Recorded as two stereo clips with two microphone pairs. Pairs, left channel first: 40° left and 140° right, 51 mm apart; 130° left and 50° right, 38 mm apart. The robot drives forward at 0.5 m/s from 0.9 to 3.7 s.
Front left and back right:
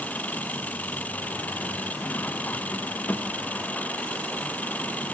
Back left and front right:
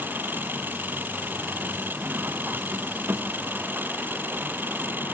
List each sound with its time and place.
0.0 s an engine running: 20° right